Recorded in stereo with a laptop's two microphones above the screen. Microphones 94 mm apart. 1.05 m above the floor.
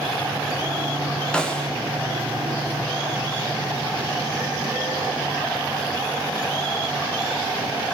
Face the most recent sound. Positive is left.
turn(degrees=10)  # may be behind; listen again after turning